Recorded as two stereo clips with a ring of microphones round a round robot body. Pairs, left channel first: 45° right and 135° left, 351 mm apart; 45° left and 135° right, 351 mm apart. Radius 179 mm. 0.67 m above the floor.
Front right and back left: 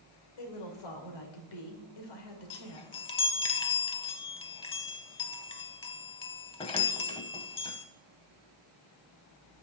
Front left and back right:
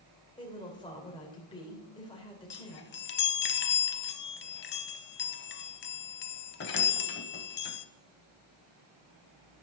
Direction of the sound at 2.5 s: 20° left.